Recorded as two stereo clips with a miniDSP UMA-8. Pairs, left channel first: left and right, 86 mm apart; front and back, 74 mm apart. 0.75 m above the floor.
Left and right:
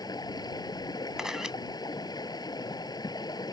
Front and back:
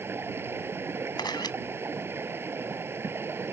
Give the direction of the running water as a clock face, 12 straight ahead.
8 o'clock.